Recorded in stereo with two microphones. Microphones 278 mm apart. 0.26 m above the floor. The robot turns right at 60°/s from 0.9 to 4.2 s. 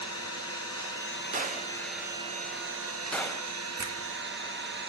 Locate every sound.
0.0 s an engine running: 120° left, 1.8 m; by 4.9 s 45° right, 1.8 m
1.3 s a gunshot: 30° right (ahead or behind), 1.0 m; by 3.5 s 15° left (ahead or behind), 1.0 m
3.8 s a finger snap: 65° right (ahead or behind), 1.8 m; by 4.0 s 60° right (ahead or behind), 1.8 m